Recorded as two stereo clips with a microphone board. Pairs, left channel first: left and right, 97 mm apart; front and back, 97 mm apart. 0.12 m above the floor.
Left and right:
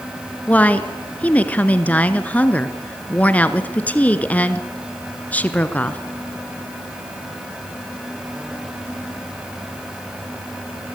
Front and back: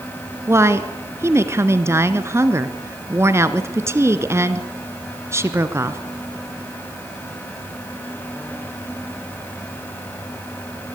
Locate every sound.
0.5 s a woman speaking: 150° left, 1.4 m